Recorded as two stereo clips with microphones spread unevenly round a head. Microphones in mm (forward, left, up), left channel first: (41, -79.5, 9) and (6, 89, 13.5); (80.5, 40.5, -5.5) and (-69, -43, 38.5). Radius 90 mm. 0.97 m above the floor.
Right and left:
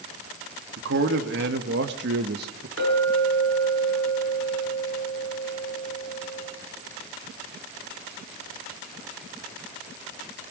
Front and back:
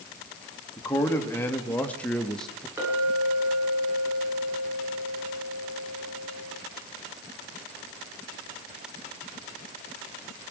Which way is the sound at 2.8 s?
135° left.